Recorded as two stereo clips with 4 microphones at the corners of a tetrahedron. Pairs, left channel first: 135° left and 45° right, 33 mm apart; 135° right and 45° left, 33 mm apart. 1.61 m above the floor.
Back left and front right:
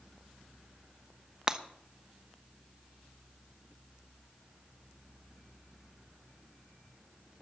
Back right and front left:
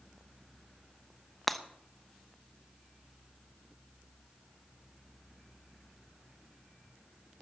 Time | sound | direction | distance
1.5 | breaking glass | 55° right | 0.9 m